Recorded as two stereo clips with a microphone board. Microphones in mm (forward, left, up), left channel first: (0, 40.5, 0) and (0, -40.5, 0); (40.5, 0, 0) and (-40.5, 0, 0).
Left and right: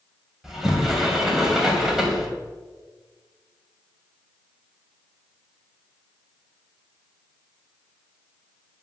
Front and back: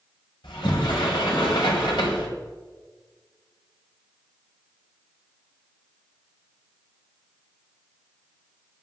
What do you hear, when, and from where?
0.4 s a sliding door: 5° right, 2.5 m